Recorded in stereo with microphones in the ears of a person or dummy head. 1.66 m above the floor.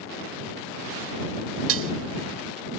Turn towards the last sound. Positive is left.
turn(degrees=-80)